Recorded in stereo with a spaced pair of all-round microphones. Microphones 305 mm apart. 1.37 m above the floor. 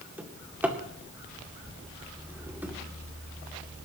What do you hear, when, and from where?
0.2 s a drawer: 5° right (ahead or behind), 2 m